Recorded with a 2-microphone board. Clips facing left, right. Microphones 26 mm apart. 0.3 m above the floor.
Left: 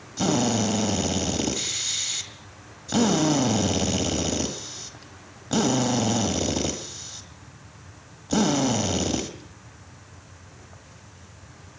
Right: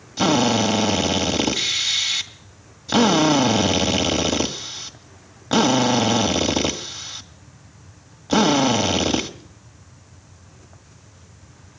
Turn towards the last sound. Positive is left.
turn(degrees=-40)  # may be behind; listen again after turning